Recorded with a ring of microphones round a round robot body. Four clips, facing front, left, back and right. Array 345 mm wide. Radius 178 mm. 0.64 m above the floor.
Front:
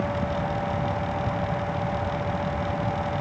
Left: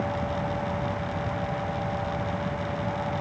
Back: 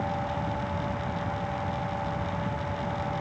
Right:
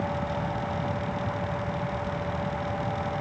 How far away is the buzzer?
I don't hear a buzzer.